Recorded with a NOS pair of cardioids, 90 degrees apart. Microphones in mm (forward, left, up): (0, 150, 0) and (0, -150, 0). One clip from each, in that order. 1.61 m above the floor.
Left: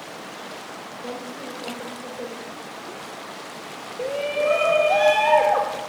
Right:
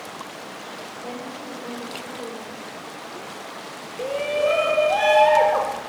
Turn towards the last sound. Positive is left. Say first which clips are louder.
# right 1 dB
turn(degrees=-5)